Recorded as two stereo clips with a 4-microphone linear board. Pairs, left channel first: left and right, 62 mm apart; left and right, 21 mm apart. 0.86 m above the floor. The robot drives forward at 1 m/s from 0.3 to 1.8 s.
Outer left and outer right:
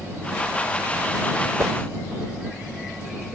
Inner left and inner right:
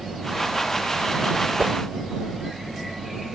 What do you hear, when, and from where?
1.6 s a whoosh: 55° right (ahead or behind); by 1.8 s 60° right (ahead or behind)